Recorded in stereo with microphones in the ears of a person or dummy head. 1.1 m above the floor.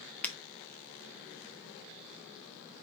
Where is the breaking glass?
10° left (ahead or behind), 0.6 m.